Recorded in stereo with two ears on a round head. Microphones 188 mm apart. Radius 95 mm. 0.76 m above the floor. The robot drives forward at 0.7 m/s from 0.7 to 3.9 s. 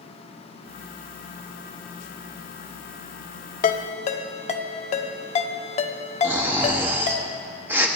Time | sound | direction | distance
3.6 | a ringtone | 40° left (ahead or behind) | 0.6 m
6.2 | snoring | 10° right (ahead or behind) | 1.0 m